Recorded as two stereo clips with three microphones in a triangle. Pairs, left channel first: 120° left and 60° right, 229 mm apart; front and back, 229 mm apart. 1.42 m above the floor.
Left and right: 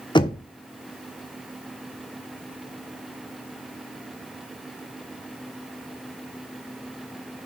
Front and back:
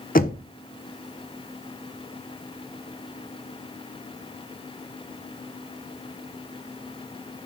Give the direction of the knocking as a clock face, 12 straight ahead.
10 o'clock.